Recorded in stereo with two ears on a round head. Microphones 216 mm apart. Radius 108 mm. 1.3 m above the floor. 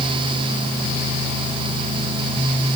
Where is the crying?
I don't hear crying.